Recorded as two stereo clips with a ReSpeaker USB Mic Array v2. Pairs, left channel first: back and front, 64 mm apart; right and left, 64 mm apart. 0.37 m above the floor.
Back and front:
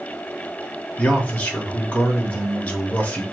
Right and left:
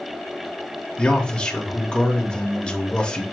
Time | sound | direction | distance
1.0 | a man speaking | 145° right | 0.9 m